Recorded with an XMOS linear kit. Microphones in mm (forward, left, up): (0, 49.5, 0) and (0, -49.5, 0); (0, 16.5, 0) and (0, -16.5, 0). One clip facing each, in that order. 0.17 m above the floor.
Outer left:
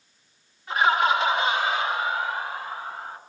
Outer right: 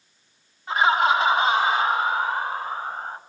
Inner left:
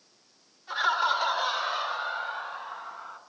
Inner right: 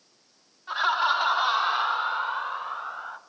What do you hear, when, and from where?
0.7 s laughter: 35° right (ahead or behind), 2 m; by 3.2 s 45° right (ahead or behind), 2 m